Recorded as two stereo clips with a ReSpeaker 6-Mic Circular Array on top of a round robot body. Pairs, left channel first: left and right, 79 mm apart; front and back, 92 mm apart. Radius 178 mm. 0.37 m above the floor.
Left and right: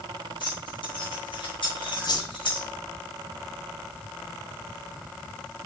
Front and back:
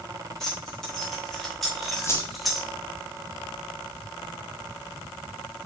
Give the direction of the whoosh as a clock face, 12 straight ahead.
10 o'clock.